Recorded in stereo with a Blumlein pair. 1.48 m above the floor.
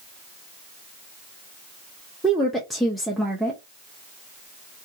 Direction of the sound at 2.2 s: Straight ahead.